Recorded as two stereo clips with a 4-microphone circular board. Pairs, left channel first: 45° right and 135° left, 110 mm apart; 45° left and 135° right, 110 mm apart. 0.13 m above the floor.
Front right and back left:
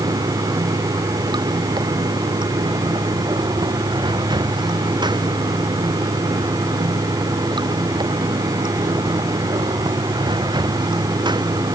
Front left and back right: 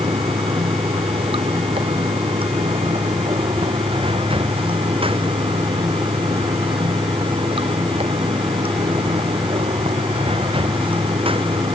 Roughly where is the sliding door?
No sliding door in this recording.